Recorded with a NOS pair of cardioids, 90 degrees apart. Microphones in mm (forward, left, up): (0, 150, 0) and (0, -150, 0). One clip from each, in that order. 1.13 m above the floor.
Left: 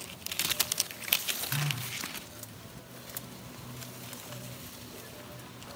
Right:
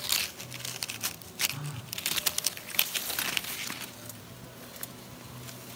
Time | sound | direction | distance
1.5 | a phone buzzing | 25° left | 1.6 m